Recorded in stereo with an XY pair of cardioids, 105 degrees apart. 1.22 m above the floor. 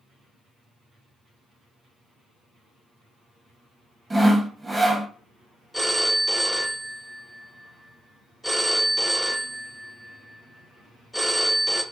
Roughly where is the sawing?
Ahead.